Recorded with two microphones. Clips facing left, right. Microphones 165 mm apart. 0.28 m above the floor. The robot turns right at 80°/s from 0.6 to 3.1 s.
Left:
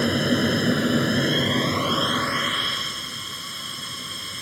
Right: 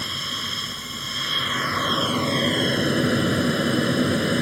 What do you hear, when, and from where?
0.0 s an aircraft: 70° left; by 4.4 s 90° right